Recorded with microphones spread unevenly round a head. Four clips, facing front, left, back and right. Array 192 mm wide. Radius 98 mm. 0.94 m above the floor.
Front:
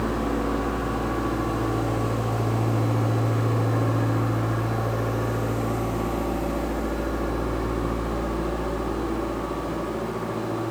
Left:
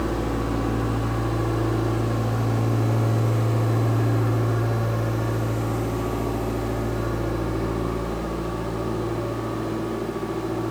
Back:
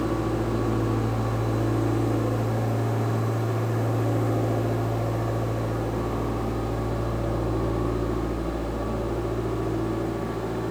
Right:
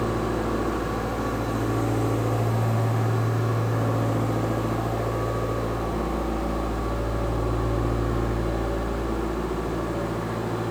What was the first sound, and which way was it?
Only background noise.